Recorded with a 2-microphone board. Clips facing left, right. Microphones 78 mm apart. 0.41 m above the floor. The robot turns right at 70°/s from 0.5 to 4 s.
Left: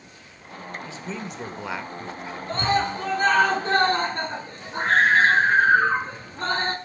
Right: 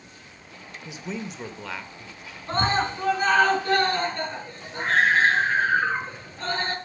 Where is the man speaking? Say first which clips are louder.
Right 4 dB; 35° right, 1.5 m; by 2.4 s 75° left, 1.5 m.